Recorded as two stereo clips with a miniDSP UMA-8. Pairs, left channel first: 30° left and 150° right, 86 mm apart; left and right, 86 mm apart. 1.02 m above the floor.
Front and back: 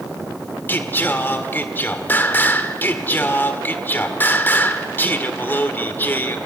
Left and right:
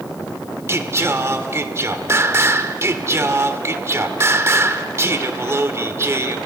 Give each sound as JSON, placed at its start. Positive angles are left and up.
{"t": 0.7, "sound": "singing", "azimuth_deg": -35, "distance_m": 1.5}